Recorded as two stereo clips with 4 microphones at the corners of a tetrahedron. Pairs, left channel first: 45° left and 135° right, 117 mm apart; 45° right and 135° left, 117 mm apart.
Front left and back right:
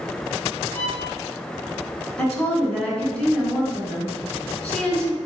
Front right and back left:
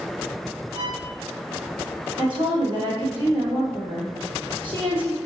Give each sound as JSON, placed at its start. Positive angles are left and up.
{"t": 0.7, "sound": "a violin", "azimuth_deg": 110, "distance_m": 1.6}
{"t": 2.2, "sound": "a woman speaking", "azimuth_deg": 125, "distance_m": 2.0}